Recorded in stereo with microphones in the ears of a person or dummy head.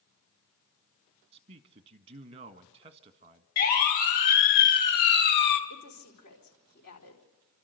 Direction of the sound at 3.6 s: 45° left (ahead or behind).